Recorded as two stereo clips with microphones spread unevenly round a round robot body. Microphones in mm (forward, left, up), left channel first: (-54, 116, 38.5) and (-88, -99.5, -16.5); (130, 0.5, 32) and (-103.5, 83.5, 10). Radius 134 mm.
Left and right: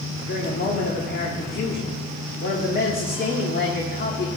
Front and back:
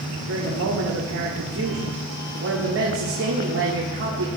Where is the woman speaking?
135° left, 1.9 m.